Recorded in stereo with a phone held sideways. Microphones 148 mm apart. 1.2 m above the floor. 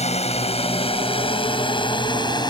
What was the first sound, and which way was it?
A drone, 45° left (ahead or behind).